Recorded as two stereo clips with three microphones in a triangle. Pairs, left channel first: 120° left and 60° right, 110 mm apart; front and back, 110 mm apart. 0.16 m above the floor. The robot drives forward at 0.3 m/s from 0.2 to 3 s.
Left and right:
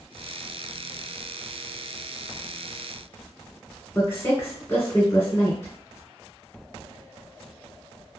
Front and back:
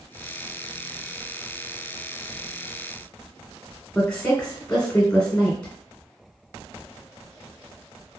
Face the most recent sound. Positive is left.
turn(degrees=80)